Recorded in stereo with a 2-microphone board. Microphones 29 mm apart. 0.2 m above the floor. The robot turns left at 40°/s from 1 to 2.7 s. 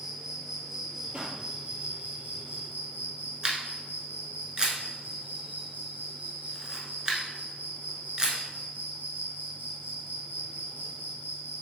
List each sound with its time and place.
0.0 s an insect: 20° right, 1.0 m; by 11.6 s 85° right, 1.0 m
1.1 s a pop: 35° right (ahead or behind), 1.7 m; by 1.4 s 45° right (ahead or behind), 1.7 m
3.4 s a camera shutter: 20° right (ahead or behind), 0.9 m